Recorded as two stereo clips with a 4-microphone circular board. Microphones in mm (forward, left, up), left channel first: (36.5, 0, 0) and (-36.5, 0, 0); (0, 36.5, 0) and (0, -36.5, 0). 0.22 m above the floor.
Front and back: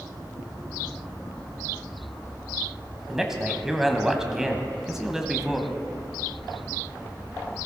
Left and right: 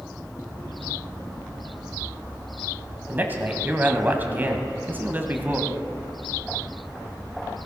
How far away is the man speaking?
About 1.2 m.